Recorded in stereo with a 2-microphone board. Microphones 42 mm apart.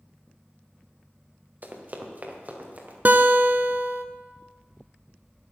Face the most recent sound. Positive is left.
turn(degrees=-50)  # may be behind; listen again after turning